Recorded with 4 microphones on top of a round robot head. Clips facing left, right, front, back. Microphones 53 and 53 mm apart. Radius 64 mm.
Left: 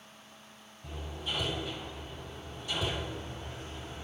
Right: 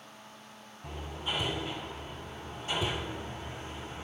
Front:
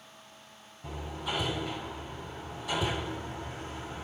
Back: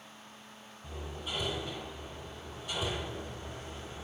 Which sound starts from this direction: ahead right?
Hammering, at 0.8 s.